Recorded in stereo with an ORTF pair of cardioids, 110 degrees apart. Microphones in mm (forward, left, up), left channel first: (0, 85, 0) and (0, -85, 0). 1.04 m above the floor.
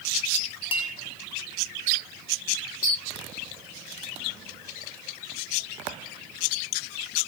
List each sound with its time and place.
0.7 s a clink: 30° left, 1.4 m